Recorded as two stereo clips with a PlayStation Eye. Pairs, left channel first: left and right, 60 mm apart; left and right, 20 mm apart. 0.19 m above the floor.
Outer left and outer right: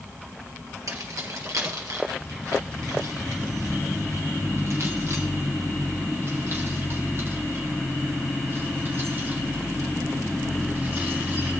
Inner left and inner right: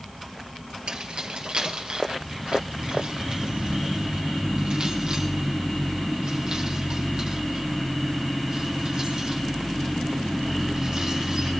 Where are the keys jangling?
70° right (ahead or behind), 3 m; by 11.5 s 35° right (ahead or behind), 9.5 m.